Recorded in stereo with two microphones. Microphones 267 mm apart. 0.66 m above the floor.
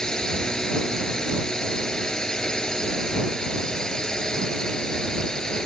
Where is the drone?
5° left (ahead or behind).